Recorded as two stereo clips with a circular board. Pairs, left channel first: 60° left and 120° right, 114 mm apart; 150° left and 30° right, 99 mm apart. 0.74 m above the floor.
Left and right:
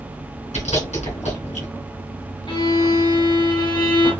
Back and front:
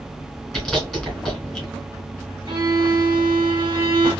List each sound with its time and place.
0.5 s chewing: 60° left, 3 m
2.5 s a violin: 20° left, 2.5 m